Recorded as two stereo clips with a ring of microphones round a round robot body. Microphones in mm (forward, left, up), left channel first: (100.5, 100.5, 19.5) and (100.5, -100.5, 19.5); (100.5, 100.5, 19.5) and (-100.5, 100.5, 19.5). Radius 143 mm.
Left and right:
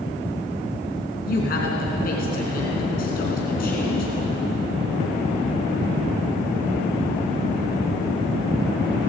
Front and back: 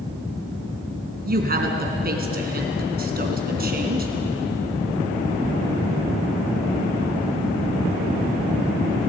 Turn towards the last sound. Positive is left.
turn(degrees=145)